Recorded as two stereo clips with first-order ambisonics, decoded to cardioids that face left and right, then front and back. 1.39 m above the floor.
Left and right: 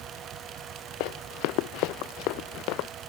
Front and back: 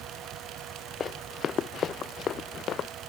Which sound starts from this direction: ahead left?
Running footsteps, at 1.0 s.